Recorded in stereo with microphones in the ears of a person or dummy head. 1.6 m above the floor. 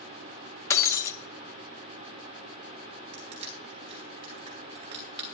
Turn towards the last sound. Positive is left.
turn(degrees=-25)  # may be behind; listen again after turning